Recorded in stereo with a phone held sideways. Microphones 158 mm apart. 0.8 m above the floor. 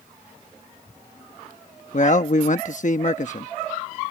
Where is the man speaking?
55° left (ahead or behind).